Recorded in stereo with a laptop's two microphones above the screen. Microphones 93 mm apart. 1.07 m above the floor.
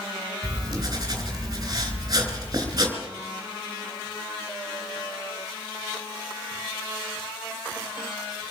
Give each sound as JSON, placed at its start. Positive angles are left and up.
{"t": 0.4, "sound": "writing", "side_deg": -40, "distance_m": 3.5}